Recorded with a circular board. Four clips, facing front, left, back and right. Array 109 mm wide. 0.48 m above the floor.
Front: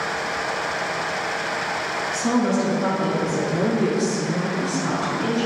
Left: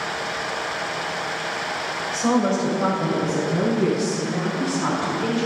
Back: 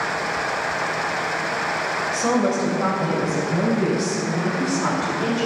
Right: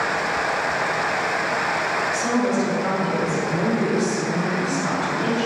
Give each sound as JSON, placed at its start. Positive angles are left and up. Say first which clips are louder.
{"t": 2.1, "sound": "a woman speaking", "louder": "left 3 dB, even", "azimuth_deg": 145, "distance_m": 2.5}